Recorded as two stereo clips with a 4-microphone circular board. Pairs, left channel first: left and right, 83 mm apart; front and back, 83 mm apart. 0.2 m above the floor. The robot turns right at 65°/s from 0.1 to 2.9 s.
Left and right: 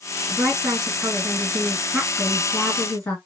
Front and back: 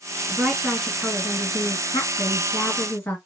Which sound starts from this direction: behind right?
A woman speaking, at 0.3 s.